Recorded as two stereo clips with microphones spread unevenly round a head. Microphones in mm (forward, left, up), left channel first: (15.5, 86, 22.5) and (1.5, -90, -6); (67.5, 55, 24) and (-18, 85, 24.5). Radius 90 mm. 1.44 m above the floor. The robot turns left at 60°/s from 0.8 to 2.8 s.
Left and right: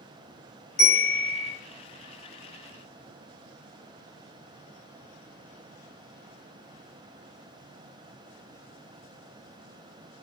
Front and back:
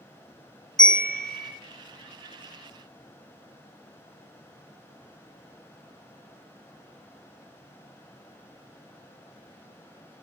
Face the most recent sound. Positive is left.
turn(degrees=-60)